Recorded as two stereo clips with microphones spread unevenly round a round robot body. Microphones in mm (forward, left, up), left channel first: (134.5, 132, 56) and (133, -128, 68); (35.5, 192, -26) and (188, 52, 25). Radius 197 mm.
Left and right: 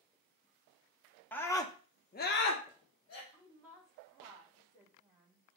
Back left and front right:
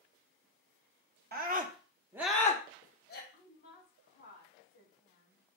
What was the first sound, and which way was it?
A scream, 10° left.